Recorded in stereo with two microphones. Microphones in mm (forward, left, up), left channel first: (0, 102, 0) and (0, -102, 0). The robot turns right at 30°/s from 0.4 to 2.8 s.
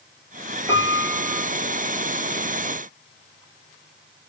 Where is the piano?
15° right (ahead or behind), 4 m; by 1.4 s 35° right (ahead or behind), 4 m.